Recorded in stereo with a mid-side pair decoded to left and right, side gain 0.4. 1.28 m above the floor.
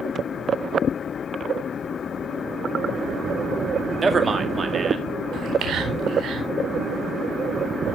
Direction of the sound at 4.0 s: 40° right.